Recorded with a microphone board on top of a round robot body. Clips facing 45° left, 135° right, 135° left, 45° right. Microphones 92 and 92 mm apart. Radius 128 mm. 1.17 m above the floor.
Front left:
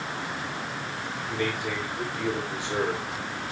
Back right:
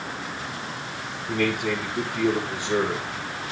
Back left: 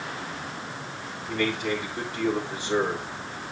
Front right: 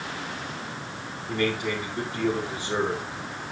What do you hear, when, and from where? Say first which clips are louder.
1.3 s a man speaking: back right 6 dB, even; 125° right, 4.5 m